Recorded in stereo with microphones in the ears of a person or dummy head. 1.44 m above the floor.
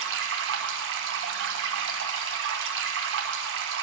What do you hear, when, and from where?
0.0 s running water: 80° right, 0.9 m